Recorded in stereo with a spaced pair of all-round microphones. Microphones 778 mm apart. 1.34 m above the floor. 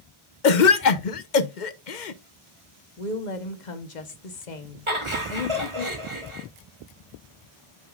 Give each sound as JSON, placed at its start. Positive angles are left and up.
{"t": 0.4, "sound": "a cough", "side_deg": 85, "distance_m": 0.9}
{"t": 3.0, "sound": "a woman speaking", "side_deg": 75, "distance_m": 1.3}
{"t": 4.9, "sound": "laughter", "side_deg": -40, "distance_m": 3.0}